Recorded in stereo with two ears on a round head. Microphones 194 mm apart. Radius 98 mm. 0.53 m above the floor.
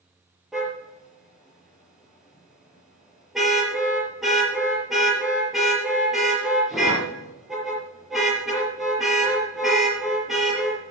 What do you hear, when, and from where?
0.5 s a car horn: centre (ahead or behind), 5 m